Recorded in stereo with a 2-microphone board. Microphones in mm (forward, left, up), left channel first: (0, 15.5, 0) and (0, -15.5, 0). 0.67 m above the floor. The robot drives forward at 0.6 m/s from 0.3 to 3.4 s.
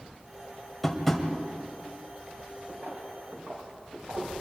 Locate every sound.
0.8 s tapping: 10° left (ahead or behind), 2 m; by 1.2 s 5° left (ahead or behind), 2.5 m
2.7 s footsteps: 60° right (ahead or behind), 6 m; by 4.3 s 50° right (ahead or behind), 7 m